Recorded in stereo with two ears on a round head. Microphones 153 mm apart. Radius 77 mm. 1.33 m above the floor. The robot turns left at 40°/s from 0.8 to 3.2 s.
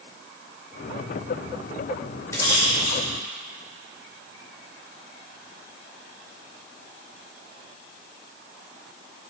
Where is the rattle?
15° left (ahead or behind), 3 m; by 3.0 s 45° left (ahead or behind), 3 m.